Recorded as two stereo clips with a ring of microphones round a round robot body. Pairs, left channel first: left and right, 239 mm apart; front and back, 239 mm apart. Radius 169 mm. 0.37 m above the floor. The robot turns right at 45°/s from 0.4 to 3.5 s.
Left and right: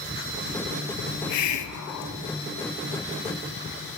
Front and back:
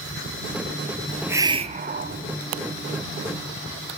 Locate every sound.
1.1 s a hiss: 90° left, 0.9 m; by 2.2 s 140° left, 0.9 m